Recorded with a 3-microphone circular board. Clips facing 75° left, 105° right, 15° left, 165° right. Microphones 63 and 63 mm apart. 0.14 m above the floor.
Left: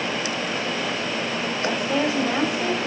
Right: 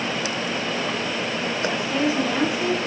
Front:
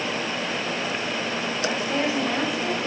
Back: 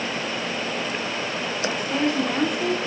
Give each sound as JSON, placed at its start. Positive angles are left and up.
{"t": 1.6, "sound": "a woman speaking", "azimuth_deg": 95, "distance_m": 5.5}